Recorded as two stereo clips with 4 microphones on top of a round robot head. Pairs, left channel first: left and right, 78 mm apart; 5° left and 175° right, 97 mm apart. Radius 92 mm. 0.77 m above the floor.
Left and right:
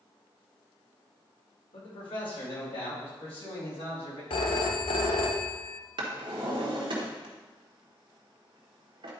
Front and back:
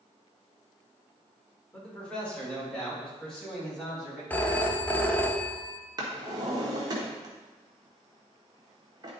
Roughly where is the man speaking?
Left.